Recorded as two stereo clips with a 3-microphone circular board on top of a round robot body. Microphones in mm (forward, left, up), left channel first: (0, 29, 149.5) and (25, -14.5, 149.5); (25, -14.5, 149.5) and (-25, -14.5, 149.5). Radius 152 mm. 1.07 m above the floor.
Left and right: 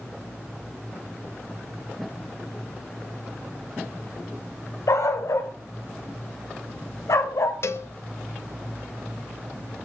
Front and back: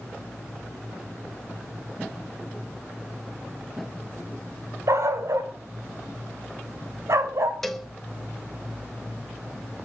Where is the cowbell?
90° left, 1.7 m.